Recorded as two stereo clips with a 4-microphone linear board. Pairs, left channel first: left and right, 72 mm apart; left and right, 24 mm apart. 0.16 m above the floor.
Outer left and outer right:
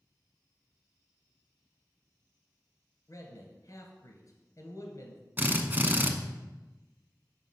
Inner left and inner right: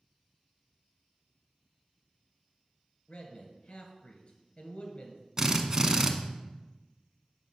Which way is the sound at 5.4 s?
25° right (ahead or behind).